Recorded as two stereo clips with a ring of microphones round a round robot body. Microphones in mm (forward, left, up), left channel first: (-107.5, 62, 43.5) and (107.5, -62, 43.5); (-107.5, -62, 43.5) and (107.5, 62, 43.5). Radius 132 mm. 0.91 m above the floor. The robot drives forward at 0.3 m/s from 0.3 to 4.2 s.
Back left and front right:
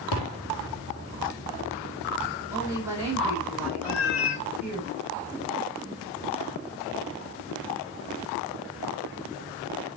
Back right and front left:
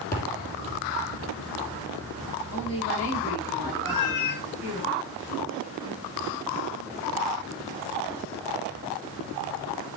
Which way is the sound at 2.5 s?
110° right.